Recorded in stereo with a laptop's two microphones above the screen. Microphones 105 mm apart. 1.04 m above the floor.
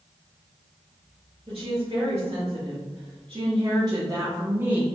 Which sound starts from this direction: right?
A woman speaking, at 1.5 s.